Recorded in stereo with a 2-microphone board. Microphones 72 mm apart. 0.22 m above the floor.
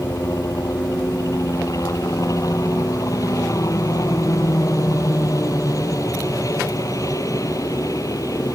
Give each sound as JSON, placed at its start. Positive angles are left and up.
{"t": 0.0, "sound": "a helicopter", "side_deg": 55}